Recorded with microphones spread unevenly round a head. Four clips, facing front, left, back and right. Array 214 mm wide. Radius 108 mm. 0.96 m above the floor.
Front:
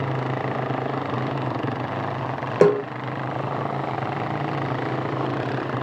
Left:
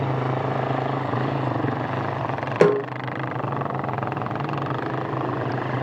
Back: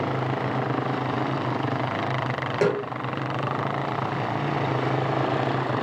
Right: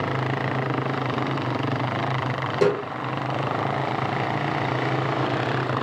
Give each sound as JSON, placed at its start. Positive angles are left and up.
{"t": 2.6, "sound": "a snare drum", "azimuth_deg": 35, "distance_m": 0.8}